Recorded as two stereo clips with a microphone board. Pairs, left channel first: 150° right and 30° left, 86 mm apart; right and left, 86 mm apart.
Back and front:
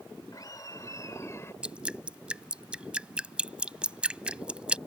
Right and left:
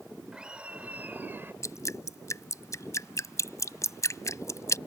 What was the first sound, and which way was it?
Laughter, 170° left.